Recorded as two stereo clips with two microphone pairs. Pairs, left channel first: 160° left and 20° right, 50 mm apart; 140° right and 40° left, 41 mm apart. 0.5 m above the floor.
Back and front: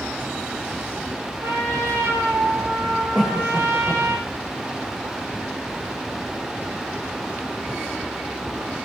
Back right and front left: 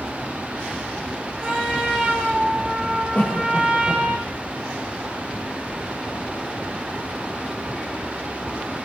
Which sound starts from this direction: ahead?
A trumpet, at 1.4 s.